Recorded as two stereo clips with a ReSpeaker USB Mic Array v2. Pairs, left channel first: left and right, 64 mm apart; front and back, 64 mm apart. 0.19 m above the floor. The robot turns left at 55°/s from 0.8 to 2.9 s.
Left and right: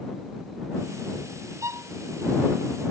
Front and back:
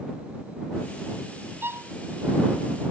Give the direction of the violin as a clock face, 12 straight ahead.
4 o'clock.